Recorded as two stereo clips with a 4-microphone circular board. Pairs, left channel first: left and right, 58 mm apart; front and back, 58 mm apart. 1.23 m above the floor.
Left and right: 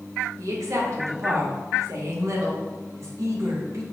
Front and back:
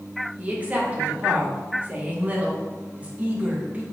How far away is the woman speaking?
About 1.1 m.